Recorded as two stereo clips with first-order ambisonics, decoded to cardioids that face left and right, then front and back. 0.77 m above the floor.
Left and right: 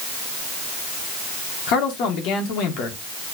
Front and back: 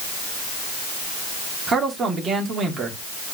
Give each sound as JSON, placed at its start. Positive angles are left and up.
{"t": 1.7, "sound": "a man speaking", "azimuth_deg": 115, "distance_m": 2.0}